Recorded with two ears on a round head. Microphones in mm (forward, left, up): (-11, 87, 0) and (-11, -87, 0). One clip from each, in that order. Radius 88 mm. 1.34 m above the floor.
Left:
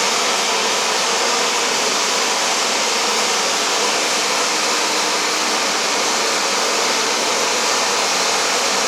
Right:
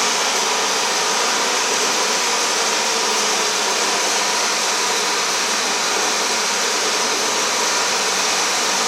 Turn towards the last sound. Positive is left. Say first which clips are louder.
# left 1 dB
turn(degrees=-65)  # may be behind; listen again after turning